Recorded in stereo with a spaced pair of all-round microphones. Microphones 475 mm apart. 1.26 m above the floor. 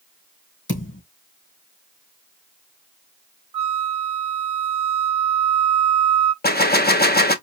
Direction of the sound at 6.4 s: 20° left (ahead or behind).